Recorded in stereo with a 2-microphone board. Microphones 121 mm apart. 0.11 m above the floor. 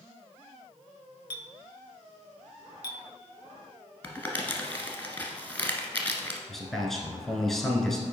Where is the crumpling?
15° left (ahead or behind), 1.2 m.